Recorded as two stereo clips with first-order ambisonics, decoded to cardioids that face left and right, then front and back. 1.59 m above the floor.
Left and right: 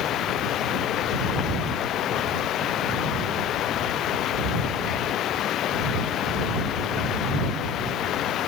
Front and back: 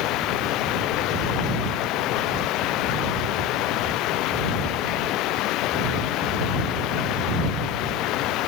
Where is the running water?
40° left.